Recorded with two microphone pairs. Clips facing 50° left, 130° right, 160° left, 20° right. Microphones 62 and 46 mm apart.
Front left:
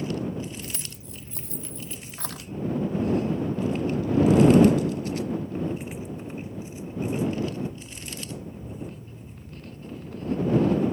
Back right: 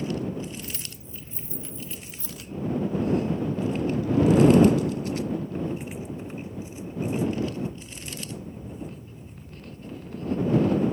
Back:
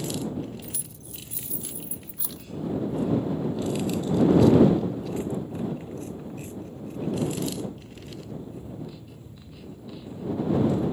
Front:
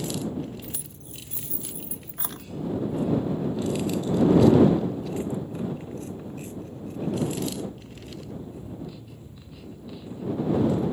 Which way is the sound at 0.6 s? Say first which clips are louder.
Even, front 1 dB; 40° left.